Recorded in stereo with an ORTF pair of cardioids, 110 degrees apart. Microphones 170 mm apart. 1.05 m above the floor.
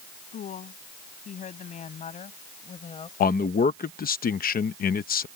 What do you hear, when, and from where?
0.3 s a woman speaking: 50° left; by 3.1 s 35° left
3.2 s a man speaking: 60° left